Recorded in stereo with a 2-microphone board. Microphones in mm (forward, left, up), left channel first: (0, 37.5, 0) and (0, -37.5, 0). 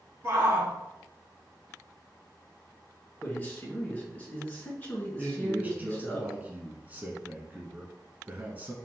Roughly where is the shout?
Right.